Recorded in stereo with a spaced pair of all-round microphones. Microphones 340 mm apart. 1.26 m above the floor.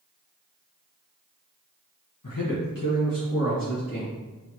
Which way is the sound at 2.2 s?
70° left (ahead or behind).